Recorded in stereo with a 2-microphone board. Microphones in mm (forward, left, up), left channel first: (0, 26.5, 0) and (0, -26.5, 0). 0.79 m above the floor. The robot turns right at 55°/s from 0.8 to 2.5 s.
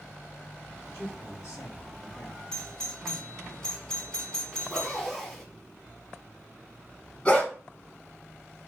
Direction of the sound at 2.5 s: 15° left (ahead or behind).